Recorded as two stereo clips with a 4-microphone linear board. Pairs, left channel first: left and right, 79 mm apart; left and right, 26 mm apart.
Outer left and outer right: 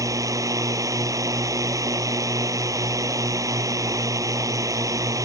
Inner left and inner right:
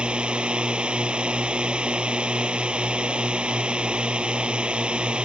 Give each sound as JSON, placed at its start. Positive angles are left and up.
{"t": 0.0, "sound": "a drone", "side_deg": -40}